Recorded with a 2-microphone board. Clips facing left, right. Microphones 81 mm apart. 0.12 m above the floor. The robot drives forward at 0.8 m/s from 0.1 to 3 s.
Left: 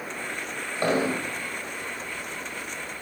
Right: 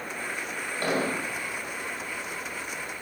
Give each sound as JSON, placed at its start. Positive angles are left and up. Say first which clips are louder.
{"t": 0.8, "sound": "an explosion", "louder": "left 4 dB", "side_deg": 15, "distance_m": 5.5}